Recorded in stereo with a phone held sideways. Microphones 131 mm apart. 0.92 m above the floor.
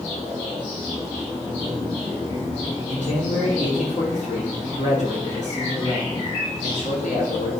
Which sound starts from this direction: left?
A man speaking, at 2.9 s.